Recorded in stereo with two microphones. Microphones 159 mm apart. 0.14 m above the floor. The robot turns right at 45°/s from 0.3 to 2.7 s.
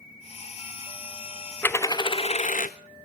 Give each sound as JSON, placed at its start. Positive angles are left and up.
{"t": 1.6, "sound": "a dropped coin", "azimuth_deg": 10, "distance_m": 0.5}